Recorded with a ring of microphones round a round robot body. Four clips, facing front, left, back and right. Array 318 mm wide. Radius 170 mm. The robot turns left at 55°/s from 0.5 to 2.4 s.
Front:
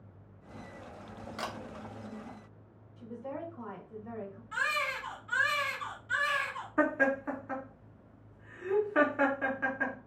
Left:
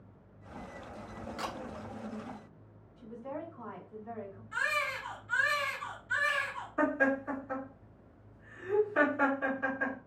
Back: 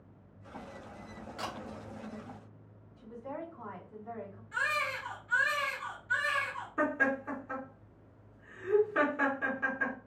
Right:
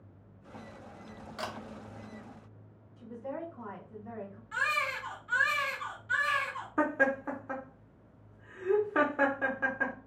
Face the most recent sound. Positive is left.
turn(degrees=-75)